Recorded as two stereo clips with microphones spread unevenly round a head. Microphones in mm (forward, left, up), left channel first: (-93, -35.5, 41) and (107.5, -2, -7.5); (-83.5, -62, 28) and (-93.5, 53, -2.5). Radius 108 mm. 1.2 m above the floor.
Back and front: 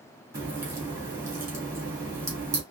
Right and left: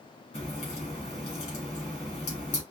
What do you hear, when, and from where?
0.3 s a crack: 70° right, 2.5 m